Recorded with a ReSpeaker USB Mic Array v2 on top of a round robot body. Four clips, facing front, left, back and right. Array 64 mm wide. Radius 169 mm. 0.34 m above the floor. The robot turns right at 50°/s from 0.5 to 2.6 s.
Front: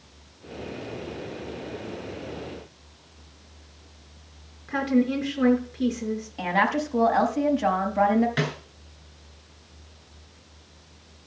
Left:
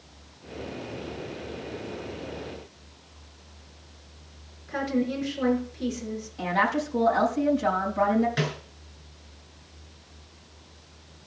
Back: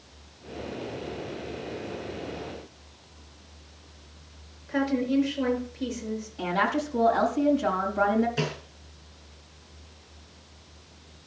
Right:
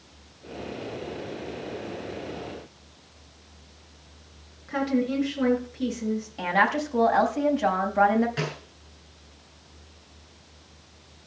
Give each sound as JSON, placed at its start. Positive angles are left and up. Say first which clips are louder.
{"t": 4.7, "sound": "a woman speaking", "louder": "right 2 dB, front 2 dB", "azimuth_deg": -20, "distance_m": 7.0}
{"t": 6.4, "sound": "a woman speaking", "louder": "right 1 dB, front 2 dB", "azimuth_deg": -45, "distance_m": 4.5}
{"t": 8.4, "sound": "a snare drum", "louder": "left 2 dB, front 2 dB", "azimuth_deg": 5, "distance_m": 4.0}